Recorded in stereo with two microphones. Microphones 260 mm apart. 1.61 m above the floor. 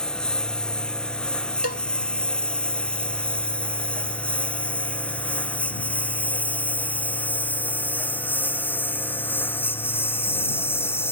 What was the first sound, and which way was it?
A lawn mower, 5° left (ahead or behind).